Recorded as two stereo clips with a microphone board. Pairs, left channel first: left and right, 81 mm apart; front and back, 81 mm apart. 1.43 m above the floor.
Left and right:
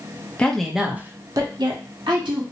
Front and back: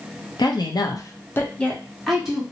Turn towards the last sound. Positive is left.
turn(degrees=-95)